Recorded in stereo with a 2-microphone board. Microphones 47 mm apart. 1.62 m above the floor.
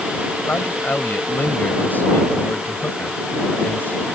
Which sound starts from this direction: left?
A man speaking, at 0.5 s.